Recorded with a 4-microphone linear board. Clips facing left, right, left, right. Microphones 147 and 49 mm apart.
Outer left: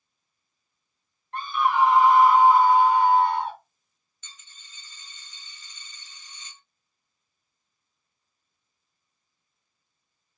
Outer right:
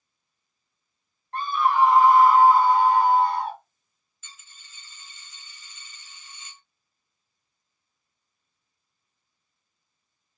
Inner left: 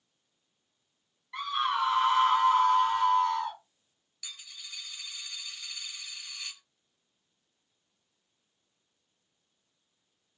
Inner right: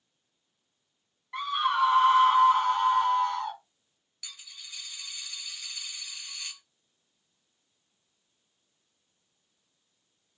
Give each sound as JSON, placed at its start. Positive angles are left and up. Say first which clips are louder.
{"t": 1.3, "sound": "a scream", "louder": "outer right 1 dB, inner right 3 dB", "side_deg": -35, "distance_m": 1.8}
{"t": 4.2, "sound": "a dropped coin", "louder": "outer right 1 dB, inner left 1 dB", "side_deg": -5, "distance_m": 0.9}